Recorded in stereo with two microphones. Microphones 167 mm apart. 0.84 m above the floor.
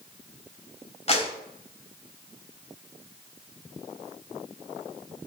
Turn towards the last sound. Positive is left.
turn(degrees=40)  # may be behind; listen again after turning